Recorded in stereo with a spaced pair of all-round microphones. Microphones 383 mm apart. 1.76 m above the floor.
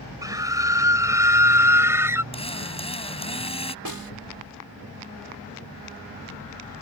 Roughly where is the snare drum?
Right.